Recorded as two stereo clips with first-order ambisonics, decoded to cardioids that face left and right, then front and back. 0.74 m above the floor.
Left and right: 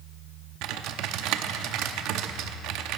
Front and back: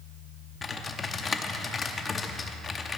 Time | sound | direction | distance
0.6 | typing on a keyboard | 70° right | 0.7 m